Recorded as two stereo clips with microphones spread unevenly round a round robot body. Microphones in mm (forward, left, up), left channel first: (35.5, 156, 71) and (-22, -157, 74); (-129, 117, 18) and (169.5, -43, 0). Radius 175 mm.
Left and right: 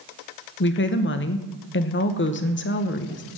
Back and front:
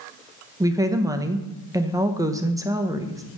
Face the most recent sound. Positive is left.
turn(degrees=45)